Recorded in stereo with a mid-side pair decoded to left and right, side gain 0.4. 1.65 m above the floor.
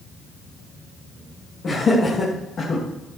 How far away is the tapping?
I don't hear tapping.